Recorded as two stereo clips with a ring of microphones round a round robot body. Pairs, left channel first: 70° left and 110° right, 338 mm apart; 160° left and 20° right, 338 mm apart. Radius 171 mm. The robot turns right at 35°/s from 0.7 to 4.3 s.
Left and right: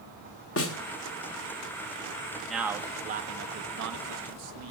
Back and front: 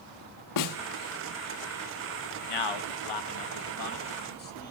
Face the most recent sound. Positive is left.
turn(degrees=-140)